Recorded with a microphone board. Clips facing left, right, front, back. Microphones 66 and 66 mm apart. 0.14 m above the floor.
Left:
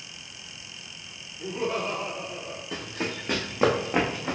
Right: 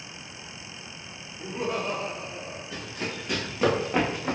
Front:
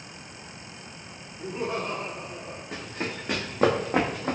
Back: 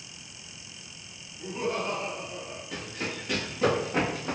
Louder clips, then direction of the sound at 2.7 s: Left 3 dB, front 2 dB; 60° left.